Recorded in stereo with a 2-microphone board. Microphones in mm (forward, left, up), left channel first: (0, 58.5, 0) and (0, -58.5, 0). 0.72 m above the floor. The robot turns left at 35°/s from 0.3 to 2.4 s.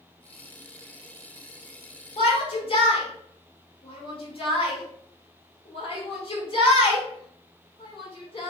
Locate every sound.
2.2 s a shout: 55° left (ahead or behind), 1.5 m; by 8.5 s 50° left (ahead or behind), 1.5 m